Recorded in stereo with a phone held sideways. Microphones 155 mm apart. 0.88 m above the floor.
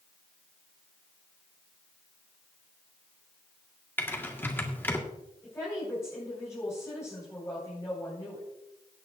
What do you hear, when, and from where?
4.0 s typing on a keyboard: 15° left (ahead or behind), 1.6 m
5.4 s a woman speaking: 20° left (ahead or behind), 4.5 m